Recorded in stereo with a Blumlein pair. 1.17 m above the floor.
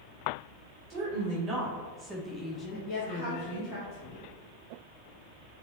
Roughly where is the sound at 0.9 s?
Ahead right.